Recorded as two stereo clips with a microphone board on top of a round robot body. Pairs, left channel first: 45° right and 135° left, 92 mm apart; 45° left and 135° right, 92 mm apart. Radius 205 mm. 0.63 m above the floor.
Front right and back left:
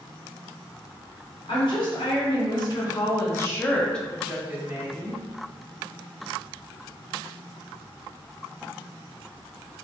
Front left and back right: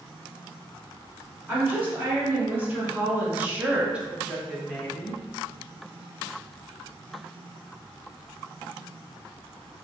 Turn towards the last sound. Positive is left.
turn(degrees=130)